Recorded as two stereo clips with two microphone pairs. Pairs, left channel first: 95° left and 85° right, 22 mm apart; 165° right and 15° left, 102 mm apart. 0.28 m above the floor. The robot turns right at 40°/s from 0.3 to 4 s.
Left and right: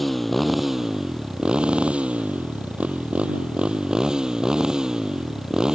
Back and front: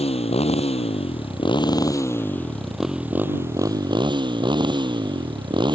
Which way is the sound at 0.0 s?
175° right.